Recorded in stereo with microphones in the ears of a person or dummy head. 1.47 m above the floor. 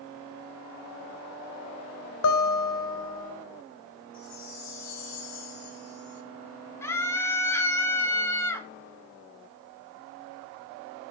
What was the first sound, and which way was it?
A guitar, 75° left (ahead or behind).